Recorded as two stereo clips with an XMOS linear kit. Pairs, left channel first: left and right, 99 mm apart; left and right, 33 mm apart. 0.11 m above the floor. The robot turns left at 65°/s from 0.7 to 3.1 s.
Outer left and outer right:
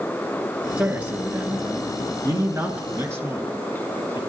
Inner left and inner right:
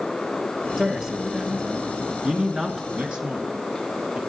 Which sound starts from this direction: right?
A man speaking, at 2.9 s.